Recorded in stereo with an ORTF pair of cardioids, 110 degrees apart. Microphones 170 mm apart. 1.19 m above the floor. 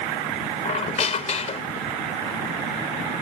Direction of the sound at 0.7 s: 40° left.